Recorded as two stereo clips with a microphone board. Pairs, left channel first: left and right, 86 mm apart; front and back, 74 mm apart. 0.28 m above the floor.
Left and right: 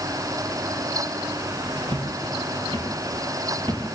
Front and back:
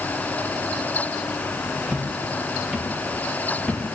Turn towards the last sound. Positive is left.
turn(degrees=-75)